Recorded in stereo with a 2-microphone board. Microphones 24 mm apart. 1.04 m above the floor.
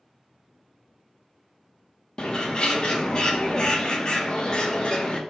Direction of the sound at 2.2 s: 35° left (ahead or behind).